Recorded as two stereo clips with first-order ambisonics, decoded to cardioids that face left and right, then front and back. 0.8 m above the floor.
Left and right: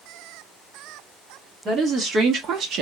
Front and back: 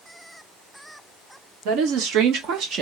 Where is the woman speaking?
155° right, 1.5 m; by 2.8 s 130° right, 0.9 m.